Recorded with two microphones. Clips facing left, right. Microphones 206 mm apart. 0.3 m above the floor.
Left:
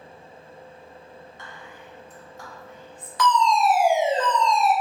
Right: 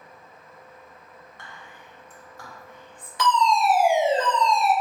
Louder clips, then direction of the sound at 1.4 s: Left 4 dB; 20° left (ahead or behind).